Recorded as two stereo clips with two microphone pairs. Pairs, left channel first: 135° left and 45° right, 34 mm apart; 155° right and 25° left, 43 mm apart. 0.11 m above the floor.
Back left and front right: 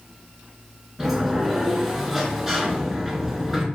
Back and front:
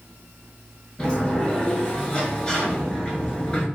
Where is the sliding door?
115° right, 0.9 m.